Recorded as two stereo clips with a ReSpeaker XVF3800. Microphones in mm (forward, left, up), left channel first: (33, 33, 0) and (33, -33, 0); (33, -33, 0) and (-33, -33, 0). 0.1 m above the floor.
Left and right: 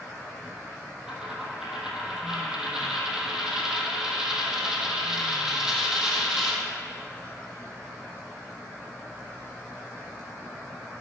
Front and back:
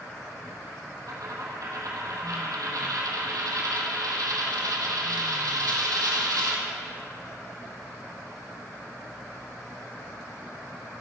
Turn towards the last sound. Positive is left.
turn(degrees=-170)